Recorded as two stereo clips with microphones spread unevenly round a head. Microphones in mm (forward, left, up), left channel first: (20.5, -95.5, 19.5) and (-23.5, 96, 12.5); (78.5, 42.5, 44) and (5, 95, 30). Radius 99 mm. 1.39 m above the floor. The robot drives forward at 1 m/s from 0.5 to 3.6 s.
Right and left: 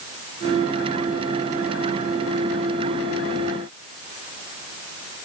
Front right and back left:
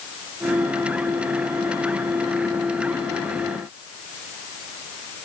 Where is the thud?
No thud in this recording.